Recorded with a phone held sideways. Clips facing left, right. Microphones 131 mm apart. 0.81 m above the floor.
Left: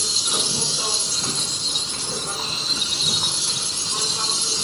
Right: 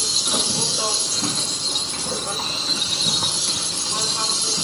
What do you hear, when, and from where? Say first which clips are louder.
0.0 s an insect: right 2 dB; 70° right (ahead or behind), 0.9 m